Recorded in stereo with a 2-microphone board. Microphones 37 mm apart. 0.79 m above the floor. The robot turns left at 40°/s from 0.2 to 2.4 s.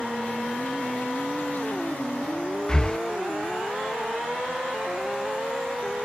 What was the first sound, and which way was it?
Breathing, 25° left (ahead or behind).